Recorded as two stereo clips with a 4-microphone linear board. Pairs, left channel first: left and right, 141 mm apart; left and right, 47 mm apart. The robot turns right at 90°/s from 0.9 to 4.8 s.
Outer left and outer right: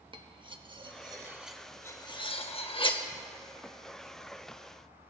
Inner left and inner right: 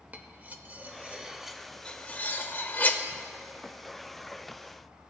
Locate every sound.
0.1 s cutlery clinking: 35° right (ahead or behind), 0.6 m; by 3.0 s 30° left (ahead or behind), 0.6 m